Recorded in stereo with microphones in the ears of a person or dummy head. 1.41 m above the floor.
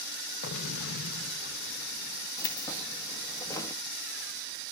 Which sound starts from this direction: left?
An explosion, at 0.4 s.